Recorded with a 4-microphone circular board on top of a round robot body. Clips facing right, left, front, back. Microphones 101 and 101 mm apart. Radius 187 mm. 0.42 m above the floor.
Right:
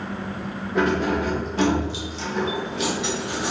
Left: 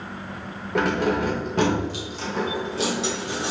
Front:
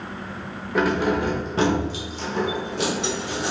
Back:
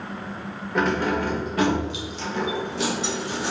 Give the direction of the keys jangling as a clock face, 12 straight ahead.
9 o'clock.